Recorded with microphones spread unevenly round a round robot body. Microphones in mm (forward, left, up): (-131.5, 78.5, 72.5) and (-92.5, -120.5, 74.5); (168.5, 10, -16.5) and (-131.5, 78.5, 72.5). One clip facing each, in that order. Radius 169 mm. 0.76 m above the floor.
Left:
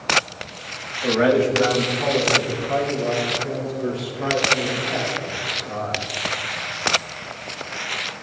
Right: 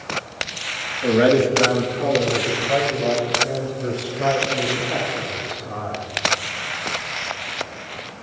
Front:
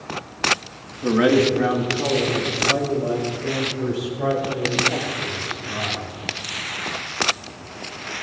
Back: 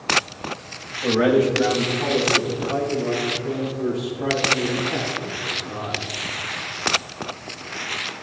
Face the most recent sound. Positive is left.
turn(degrees=-30)